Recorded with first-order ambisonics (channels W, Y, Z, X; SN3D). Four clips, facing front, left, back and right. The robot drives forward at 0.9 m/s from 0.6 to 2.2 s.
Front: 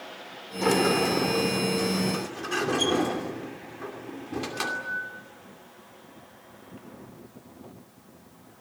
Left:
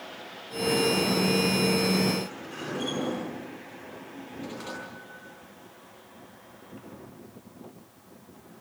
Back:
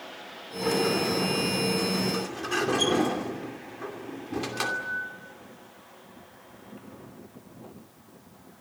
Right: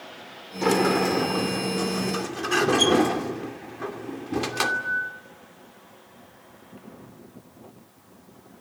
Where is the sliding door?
60° right, 3 m; by 5.1 s 90° right, 2.5 m.